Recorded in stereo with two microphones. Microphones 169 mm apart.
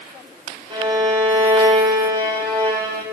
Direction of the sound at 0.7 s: 35° right (ahead or behind).